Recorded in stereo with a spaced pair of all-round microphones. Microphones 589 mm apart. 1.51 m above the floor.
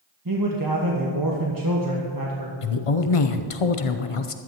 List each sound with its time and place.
0.2 s a man speaking: 35° right (ahead or behind), 1.4 m
2.6 s a woman speaking: 65° left (ahead or behind), 0.7 m